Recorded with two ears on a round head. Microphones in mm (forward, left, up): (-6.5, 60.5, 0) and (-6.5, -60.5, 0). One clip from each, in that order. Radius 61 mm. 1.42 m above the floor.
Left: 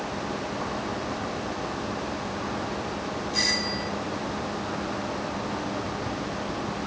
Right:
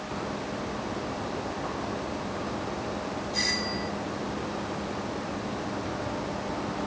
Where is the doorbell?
10° left (ahead or behind).